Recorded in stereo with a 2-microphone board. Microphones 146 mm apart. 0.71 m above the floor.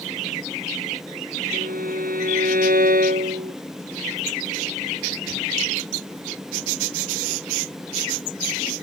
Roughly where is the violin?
Right.